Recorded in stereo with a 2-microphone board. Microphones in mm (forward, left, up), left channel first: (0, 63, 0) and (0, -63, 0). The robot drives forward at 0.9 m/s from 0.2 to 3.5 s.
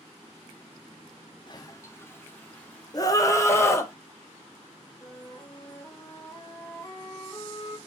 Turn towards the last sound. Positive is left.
turn(degrees=25)  # may be behind; listen again after turning